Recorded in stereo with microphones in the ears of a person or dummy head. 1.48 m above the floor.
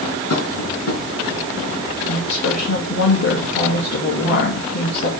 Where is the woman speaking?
55° left (ahead or behind), 2.5 m.